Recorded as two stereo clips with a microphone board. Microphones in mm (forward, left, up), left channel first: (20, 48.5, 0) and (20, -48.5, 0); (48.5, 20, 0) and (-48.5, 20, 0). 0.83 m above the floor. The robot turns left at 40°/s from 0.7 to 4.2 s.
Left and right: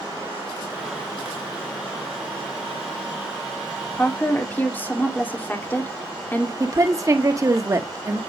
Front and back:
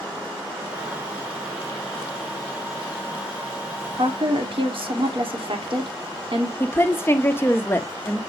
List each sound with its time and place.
3.9 s a woman speaking: 170° left, 2 m; by 6.5 s 160° left, 2 m
6.6 s a woman speaking: 55° right, 1.2 m